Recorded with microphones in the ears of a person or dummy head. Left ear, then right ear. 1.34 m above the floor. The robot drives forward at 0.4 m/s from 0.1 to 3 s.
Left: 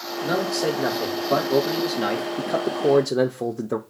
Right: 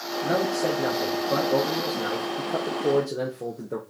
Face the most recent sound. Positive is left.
turn(degrees=65)  # may be behind; listen again after turning